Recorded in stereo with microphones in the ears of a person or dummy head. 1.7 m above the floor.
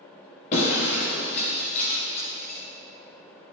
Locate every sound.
0.5 s breaking glass: 45° left (ahead or behind), 7 m